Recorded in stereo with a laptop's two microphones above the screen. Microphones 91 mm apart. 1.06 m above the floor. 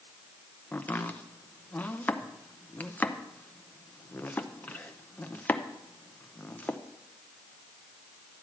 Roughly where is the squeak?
No squeak in this recording.